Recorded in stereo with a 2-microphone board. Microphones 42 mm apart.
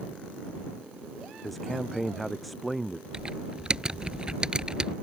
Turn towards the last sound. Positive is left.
turn(degrees=-20)  # may be behind; listen again after turning